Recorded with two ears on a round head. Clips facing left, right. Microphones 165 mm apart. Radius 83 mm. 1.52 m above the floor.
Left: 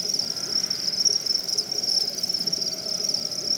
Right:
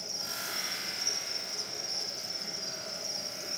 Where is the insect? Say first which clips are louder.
Left 5 dB; 50° left (ahead or behind), 0.9 m.